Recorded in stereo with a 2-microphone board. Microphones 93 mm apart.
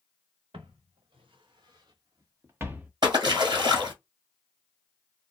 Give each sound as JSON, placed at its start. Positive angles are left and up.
{"t": 0.5, "sound": "footsteps", "side_deg": -75, "distance_m": 1.5}
{"t": 3.0, "sound": "a splash", "side_deg": -50, "distance_m": 1.3}